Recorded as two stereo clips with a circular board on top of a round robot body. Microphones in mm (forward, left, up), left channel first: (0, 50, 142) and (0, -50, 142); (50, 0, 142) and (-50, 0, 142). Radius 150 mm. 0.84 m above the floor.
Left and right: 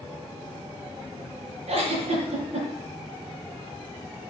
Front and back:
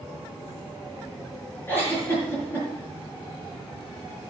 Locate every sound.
1.7 s a giggle: 70° right, 5 m